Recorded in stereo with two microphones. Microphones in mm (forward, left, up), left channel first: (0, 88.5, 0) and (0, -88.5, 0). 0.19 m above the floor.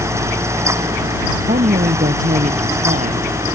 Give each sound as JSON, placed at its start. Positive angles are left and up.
{"t": 1.4, "sound": "a woman speaking", "side_deg": -50}